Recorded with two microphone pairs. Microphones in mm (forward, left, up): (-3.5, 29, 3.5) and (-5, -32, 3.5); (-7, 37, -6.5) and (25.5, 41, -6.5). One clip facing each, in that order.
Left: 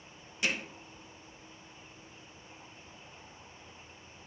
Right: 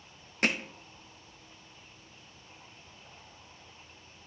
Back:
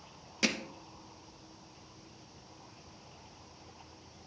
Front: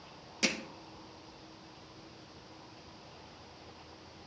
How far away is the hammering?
About 0.8 m.